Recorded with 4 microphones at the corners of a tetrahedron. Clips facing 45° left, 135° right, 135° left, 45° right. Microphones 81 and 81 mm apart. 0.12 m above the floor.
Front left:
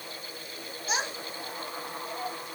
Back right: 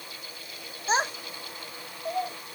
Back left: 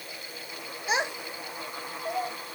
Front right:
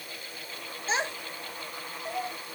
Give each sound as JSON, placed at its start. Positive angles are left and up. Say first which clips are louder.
{"t": 0.9, "sound": "a child speaking", "louder": "back right 6 dB, back left 2 dB", "azimuth_deg": -165, "distance_m": 0.9}